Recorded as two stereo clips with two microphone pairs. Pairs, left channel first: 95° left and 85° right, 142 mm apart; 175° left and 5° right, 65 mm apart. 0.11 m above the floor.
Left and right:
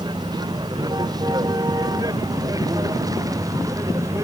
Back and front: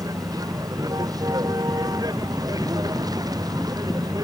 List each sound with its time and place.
0.0 s a vehicle: 25° right; by 4.2 s 15° right